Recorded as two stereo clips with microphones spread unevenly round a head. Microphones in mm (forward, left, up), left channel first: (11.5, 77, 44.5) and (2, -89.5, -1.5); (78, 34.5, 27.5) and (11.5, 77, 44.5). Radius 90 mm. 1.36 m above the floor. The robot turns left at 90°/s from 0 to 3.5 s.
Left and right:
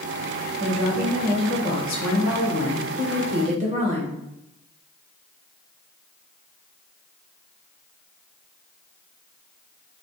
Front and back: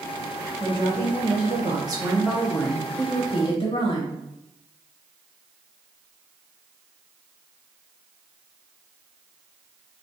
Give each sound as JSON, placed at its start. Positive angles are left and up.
{"t": 0.6, "sound": "a woman speaking", "azimuth_deg": -140, "distance_m": 1.1}